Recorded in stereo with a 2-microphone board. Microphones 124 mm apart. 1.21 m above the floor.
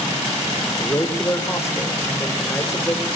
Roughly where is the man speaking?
Left.